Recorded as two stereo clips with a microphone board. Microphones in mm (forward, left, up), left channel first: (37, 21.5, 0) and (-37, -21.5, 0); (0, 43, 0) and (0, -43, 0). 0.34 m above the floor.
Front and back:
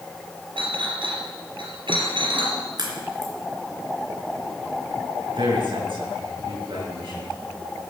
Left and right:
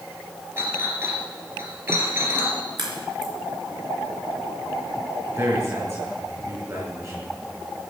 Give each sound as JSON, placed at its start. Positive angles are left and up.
{"t": 0.6, "sound": "a clink", "azimuth_deg": -145, "distance_m": 3.0}
{"t": 2.8, "sound": "a crack", "azimuth_deg": -115, "distance_m": 4.0}
{"t": 5.3, "sound": "a man speaking", "azimuth_deg": -135, "distance_m": 6.5}